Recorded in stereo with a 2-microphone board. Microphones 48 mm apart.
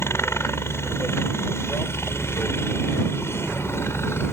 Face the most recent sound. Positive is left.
turn(degrees=60)  # may be behind; listen again after turning